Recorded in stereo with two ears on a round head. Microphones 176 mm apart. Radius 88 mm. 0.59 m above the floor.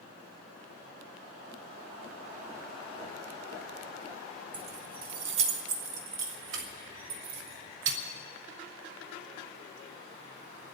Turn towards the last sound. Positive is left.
turn(degrees=-65)  # may be behind; listen again after turning